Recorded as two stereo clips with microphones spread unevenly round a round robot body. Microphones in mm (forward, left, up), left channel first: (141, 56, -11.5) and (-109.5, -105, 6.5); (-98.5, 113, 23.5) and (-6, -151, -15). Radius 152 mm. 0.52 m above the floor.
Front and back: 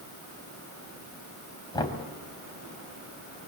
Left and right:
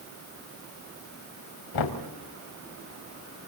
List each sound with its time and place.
1.7 s knocking: 110° left, 3 m